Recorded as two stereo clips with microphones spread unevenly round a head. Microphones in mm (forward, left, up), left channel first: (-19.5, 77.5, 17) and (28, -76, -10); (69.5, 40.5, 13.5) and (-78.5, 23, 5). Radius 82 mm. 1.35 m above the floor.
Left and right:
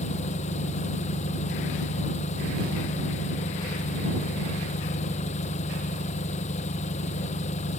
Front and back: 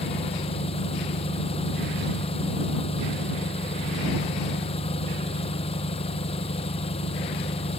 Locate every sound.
0.0 s an engine running: 60° left